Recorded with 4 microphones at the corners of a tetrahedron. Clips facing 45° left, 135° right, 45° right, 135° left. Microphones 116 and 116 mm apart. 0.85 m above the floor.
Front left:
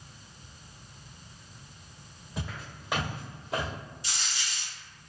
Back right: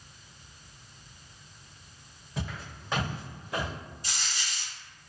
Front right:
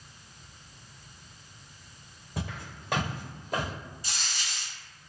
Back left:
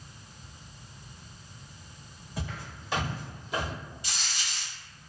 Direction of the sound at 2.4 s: 45° right.